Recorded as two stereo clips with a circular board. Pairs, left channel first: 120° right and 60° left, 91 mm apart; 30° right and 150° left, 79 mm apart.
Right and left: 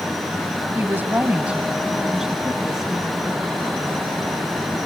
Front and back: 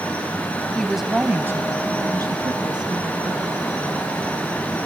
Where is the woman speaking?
35° left, 1.1 m; by 3.5 s 150° left, 3 m.